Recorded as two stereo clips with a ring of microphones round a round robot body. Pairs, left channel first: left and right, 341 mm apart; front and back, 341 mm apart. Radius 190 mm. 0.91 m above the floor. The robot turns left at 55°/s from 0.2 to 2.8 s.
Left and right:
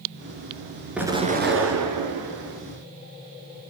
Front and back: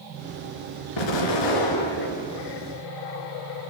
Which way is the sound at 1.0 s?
5° right.